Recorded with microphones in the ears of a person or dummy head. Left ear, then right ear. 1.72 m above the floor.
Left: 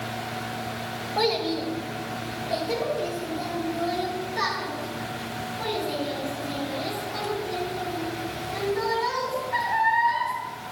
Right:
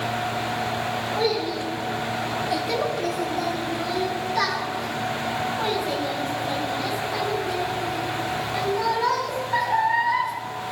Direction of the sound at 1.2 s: 25° left (ahead or behind).